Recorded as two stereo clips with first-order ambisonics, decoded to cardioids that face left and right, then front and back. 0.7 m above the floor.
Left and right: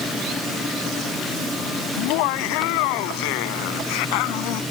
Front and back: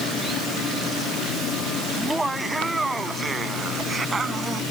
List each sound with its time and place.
2.0 s laughter: 90° left; by 4.6 s 105° left